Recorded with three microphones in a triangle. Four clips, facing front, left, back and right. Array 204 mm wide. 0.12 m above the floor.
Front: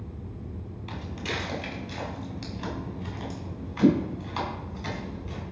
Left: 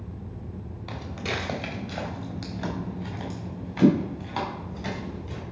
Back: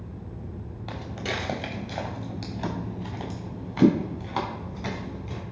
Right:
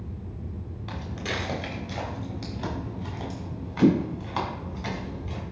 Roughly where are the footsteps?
Behind.